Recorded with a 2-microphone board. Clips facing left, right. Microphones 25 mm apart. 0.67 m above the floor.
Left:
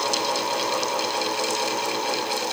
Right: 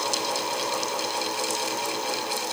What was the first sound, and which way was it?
Only background noise.